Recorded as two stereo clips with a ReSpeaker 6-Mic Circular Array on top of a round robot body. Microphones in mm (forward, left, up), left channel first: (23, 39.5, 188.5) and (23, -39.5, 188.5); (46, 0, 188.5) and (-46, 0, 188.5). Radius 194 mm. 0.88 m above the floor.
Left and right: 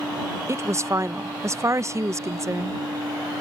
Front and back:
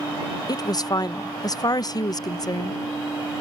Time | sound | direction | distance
0.5 | a woman speaking | 40° right | ?